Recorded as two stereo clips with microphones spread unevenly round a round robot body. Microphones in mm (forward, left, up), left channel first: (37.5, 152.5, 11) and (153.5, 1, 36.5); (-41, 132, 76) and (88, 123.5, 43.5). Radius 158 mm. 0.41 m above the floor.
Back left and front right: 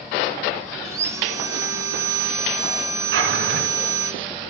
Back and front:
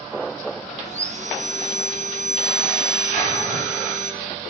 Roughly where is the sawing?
Ahead left.